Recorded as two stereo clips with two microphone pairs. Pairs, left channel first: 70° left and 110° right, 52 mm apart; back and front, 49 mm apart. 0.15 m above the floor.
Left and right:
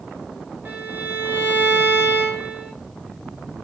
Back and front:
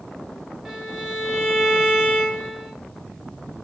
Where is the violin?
80° right, 0.7 m.